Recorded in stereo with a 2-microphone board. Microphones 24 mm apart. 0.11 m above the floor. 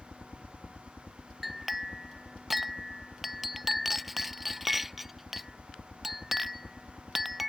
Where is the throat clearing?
No throat clearing in this recording.